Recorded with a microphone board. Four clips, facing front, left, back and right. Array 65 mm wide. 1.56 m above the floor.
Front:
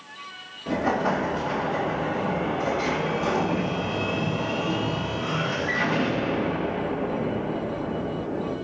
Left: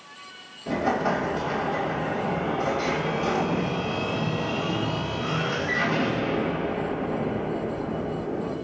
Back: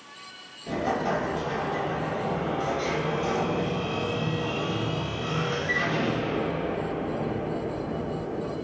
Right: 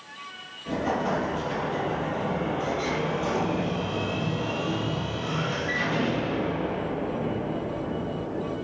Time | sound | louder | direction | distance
0.7 | an explosion | left 2 dB, front 3 dB | 15° left | 3.5 m